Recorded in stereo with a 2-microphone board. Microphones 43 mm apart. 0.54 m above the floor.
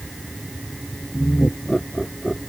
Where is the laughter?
5° left (ahead or behind); by 2.4 s 10° left (ahead or behind).